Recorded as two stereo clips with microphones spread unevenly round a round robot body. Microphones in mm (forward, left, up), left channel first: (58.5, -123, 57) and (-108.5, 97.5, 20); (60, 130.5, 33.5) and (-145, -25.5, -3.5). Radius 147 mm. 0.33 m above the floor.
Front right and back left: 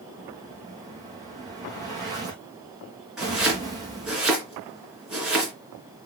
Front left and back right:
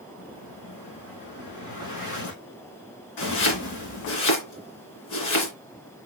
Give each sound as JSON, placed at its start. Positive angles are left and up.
{"t": 0.2, "sound": "an explosion", "azimuth_deg": 50, "distance_m": 4.5}
{"t": 3.2, "sound": "chopping", "azimuth_deg": 40, "distance_m": 3.5}